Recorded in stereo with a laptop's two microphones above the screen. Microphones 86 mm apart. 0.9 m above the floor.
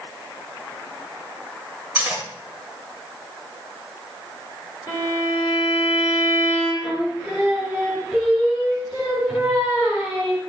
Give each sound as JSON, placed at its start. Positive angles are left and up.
{"t": 1.9, "sound": "cutlery clinking", "side_deg": -15, "distance_m": 1.9}
{"t": 4.9, "sound": "a violin", "side_deg": 40, "distance_m": 3.0}
{"t": 6.8, "sound": "singing", "side_deg": -15, "distance_m": 1.6}